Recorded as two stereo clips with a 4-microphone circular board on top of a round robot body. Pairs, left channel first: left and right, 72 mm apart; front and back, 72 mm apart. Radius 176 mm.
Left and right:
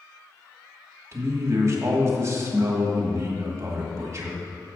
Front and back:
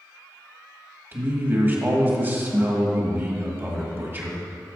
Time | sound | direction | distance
1.1 | a man speaking | 130° right | 1.7 m